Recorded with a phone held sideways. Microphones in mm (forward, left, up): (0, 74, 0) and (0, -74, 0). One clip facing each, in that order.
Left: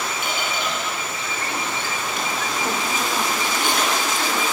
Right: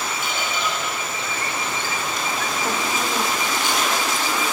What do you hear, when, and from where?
0.2 s a squeak: 55° left (ahead or behind), 7 m